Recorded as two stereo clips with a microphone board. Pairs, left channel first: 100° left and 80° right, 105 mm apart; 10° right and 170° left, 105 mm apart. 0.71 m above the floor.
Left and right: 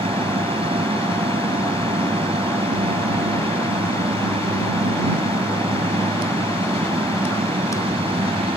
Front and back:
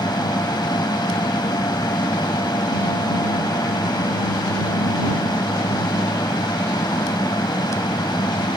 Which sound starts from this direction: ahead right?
An aircraft, at 0.0 s.